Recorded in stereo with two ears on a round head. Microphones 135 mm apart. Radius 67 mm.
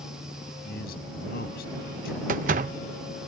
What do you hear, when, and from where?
0.6 s a man speaking: 70° left (ahead or behind)
2.3 s a door slam: 55° right (ahead or behind)